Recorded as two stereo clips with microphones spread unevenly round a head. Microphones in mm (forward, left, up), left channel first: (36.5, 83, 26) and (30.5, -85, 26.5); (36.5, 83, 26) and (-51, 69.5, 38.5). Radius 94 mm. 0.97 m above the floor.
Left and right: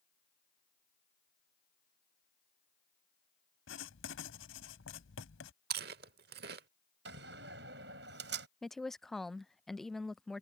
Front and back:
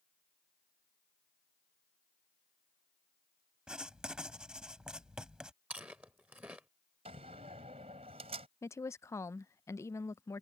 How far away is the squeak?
I don't hear a squeak.